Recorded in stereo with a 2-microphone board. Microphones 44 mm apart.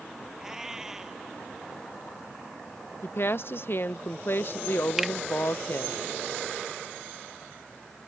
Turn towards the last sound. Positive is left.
turn(degrees=-5)  # may be behind; listen again after turning